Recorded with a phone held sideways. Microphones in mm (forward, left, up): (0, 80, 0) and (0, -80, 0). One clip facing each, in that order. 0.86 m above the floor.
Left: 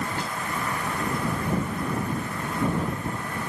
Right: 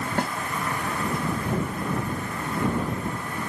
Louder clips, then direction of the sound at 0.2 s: Right 5 dB; 60° right (ahead or behind).